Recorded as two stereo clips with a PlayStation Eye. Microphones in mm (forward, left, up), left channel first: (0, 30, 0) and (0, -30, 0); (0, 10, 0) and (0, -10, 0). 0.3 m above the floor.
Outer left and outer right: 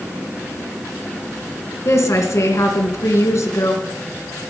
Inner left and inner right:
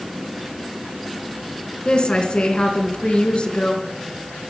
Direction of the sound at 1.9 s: 60° left (ahead or behind).